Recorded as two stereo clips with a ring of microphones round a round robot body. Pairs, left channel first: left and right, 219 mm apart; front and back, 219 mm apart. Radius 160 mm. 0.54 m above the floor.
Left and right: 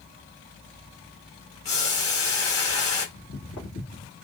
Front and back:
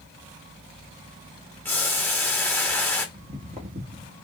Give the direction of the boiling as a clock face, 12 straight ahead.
9 o'clock.